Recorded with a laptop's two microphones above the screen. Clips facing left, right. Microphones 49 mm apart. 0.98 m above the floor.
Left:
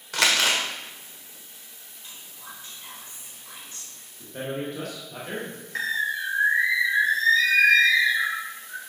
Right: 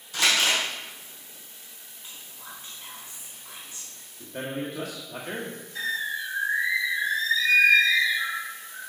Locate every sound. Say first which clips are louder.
0.1 s crumpling: left 1 dB; 70° left (ahead or behind), 1.6 m
2.0 s whispering: even; 10° right (ahead or behind), 3.5 m
4.2 s a man speaking: left 1 dB; 15° right (ahead or behind), 1.2 m
5.8 s a bird: left 3 dB; 55° left (ahead or behind), 0.9 m